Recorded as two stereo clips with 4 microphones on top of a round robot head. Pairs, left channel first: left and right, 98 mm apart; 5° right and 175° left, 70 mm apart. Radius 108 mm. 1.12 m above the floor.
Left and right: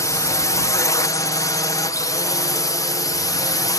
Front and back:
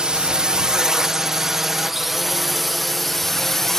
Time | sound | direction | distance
0.0 | a drone | 110° left | ?